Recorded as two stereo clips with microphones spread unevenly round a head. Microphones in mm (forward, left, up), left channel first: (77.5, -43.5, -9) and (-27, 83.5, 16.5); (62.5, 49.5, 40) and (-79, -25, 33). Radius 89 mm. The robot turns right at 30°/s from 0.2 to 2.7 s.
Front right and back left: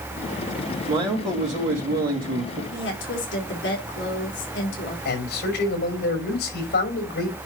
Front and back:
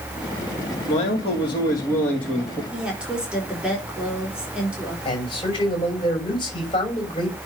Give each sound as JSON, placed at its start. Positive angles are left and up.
{"t": 0.9, "sound": "a man speaking", "azimuth_deg": 70, "distance_m": 3.0}
{"t": 2.7, "sound": "a woman speaking", "azimuth_deg": -70, "distance_m": 3.5}
{"t": 5.0, "sound": "a man speaking", "azimuth_deg": -35, "distance_m": 5.5}